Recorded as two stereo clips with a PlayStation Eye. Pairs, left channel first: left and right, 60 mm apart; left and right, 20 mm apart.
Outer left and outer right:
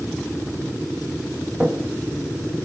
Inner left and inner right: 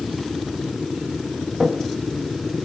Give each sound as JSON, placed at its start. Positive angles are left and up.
{"t": 1.6, "sound": "footsteps", "side_deg": -30, "distance_m": 2.5}